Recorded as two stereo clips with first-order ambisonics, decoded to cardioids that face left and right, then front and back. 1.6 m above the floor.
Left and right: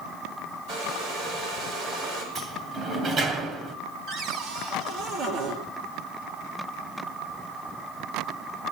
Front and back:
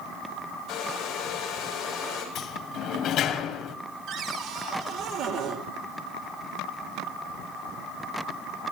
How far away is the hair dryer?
About 6.5 m.